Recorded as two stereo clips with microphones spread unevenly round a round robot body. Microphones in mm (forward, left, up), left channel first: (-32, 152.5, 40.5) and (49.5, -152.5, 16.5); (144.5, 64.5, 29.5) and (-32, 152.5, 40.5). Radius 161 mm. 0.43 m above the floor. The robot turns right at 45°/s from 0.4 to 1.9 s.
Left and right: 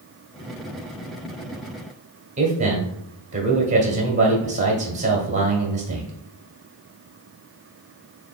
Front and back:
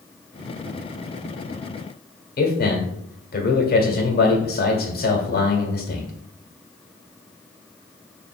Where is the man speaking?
15° right, 1.4 m.